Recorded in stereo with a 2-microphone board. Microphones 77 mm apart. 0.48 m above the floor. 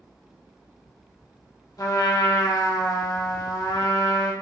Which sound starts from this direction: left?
A trumpet, at 1.8 s.